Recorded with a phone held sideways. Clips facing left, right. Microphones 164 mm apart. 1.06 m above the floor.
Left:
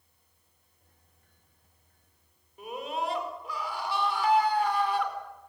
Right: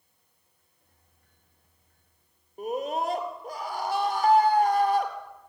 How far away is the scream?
About 4.5 m.